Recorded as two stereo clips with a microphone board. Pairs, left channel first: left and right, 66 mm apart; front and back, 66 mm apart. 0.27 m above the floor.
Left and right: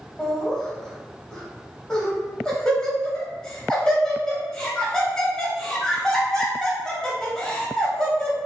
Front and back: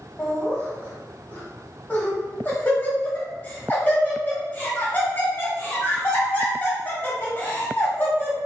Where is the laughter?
20° left, 1.1 m.